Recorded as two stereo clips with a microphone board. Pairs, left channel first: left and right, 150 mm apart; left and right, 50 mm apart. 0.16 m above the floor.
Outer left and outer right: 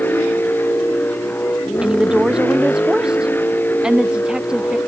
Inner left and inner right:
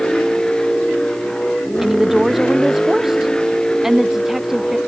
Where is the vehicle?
15° left (ahead or behind).